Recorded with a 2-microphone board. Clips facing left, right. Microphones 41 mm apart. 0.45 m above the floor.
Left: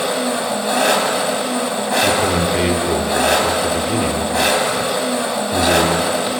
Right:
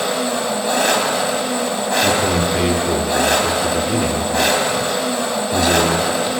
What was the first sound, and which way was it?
An engine running, 5° left (ahead or behind).